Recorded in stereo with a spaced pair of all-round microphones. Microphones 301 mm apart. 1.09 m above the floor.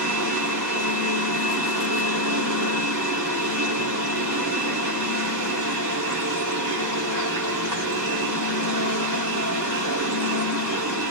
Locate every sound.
0.0 s a machine running: 70° right (ahead or behind), 2.0 m